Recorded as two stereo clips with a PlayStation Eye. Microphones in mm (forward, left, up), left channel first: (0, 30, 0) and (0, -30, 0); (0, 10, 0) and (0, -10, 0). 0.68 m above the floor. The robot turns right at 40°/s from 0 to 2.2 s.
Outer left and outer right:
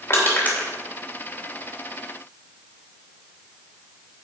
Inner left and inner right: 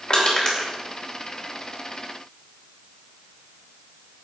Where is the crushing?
40° left (ahead or behind), 3 m; by 0.7 s 20° left (ahead or behind), 3 m.